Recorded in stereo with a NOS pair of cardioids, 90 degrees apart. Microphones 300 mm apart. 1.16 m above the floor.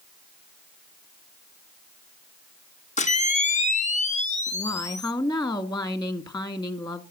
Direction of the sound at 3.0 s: 25° left.